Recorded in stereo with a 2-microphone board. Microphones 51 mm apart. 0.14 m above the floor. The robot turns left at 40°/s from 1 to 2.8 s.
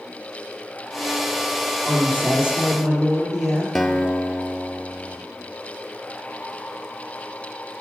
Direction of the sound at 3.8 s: Centre (ahead or behind).